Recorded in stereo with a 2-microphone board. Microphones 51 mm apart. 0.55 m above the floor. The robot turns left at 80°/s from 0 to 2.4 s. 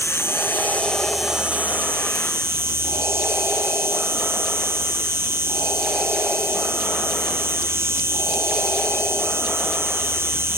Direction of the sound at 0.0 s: 90° left.